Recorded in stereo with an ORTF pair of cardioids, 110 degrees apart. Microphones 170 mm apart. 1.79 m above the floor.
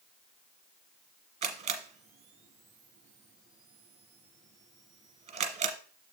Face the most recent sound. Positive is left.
turn(degrees=-50)